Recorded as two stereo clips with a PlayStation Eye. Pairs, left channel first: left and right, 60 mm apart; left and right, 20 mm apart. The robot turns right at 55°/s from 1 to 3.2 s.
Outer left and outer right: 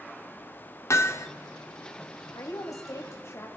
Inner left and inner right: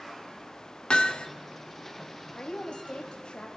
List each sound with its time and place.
0.9 s hammering: 55° left (ahead or behind), 1.3 m
2.4 s a woman speaking: 80° left, 2.5 m; by 3.5 s 130° left, 2.5 m